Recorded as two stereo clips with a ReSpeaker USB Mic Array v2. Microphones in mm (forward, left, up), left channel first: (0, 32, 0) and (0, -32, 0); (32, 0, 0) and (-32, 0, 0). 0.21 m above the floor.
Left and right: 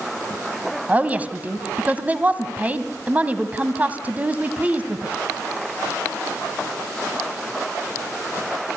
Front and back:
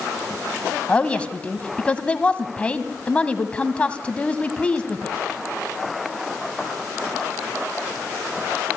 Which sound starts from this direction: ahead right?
A woman speaking, at 0.9 s.